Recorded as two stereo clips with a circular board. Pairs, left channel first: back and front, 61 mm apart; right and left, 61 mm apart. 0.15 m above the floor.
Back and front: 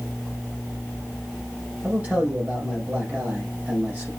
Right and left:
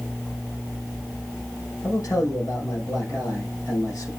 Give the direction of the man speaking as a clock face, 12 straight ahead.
2 o'clock.